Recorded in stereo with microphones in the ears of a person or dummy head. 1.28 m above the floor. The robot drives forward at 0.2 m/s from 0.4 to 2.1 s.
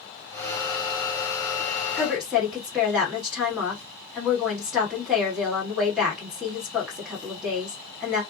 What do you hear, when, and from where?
2.0 s a woman speaking: 5° right (ahead or behind), 1.2 m